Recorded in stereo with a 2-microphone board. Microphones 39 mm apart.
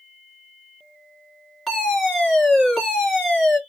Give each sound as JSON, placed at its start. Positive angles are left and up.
{"t": 1.7, "sound": "a fire alarm", "side_deg": 0, "distance_m": 2.0}